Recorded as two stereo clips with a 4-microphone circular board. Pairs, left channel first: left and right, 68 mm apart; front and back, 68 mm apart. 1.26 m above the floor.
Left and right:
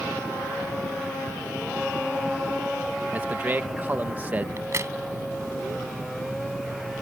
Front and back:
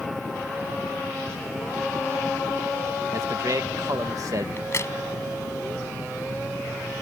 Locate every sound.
3.1 s a man speaking: 150° right
4.6 s a crack: 45° right